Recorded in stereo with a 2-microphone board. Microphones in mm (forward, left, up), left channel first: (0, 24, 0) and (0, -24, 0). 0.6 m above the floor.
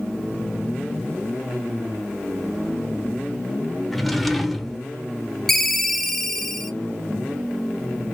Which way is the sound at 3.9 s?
5° left (ahead or behind).